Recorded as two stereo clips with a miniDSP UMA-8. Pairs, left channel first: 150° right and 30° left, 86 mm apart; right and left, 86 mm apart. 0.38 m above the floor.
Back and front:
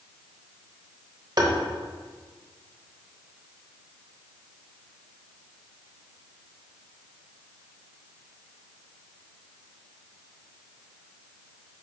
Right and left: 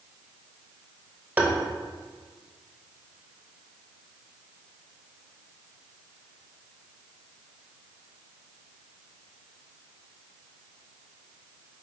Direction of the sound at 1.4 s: 25° left.